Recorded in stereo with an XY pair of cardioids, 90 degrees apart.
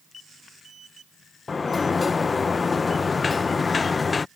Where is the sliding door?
35° left.